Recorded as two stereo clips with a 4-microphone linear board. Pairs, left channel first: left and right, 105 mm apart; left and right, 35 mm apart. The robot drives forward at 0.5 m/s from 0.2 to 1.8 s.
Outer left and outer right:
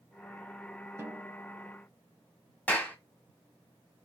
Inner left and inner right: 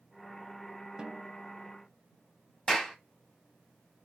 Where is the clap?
15° left (ahead or behind), 1.4 m.